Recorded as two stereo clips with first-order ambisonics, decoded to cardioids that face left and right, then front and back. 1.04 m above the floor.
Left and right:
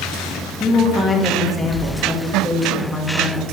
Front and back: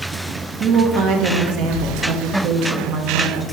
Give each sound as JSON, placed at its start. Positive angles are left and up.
{"t": 0.6, "sound": "a woman speaking", "azimuth_deg": 170, "distance_m": 0.7}